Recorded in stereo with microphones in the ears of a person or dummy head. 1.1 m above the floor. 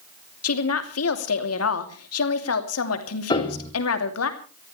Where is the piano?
25° left (ahead or behind), 2.5 m.